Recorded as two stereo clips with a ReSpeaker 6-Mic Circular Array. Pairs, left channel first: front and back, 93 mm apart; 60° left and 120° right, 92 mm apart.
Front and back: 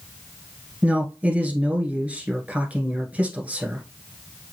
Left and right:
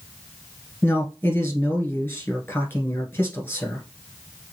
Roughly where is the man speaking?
Behind left.